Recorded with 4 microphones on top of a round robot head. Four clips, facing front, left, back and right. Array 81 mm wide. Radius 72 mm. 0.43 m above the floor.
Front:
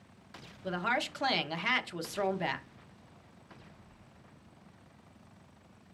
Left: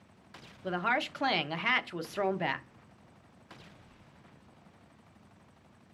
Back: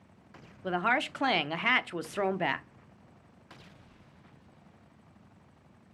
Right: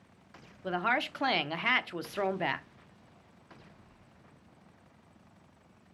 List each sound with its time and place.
0.6 s a woman speaking: 170° right, 0.8 m